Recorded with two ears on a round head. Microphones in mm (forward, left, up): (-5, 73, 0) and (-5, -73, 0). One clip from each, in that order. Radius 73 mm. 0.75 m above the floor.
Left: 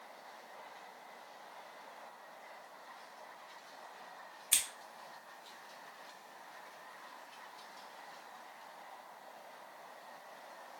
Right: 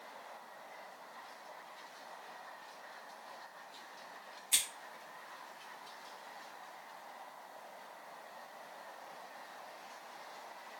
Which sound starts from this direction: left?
Scissors, at 4.5 s.